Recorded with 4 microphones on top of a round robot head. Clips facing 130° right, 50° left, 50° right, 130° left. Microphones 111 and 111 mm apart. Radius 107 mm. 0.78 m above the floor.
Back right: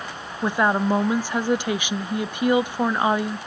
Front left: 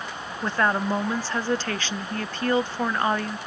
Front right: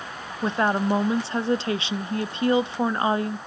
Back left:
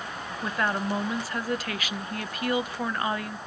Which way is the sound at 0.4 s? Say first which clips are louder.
Back right 3 dB, front right 6 dB; 70° right.